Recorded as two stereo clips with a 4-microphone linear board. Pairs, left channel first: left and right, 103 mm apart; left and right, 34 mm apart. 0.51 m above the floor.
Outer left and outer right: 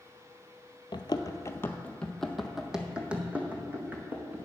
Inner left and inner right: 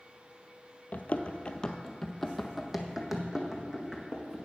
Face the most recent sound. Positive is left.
turn(degrees=-20)  # may be behind; listen again after turning